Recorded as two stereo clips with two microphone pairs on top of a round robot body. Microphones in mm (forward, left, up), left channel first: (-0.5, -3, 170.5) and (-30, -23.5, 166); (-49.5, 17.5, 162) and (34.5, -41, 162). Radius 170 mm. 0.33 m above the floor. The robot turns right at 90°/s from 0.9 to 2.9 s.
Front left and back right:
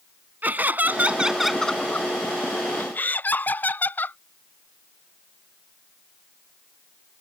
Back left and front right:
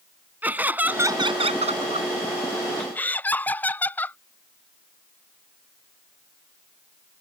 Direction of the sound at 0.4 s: 110° right.